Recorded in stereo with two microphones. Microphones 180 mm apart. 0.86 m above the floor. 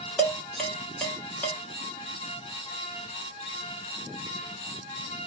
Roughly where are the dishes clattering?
Centre.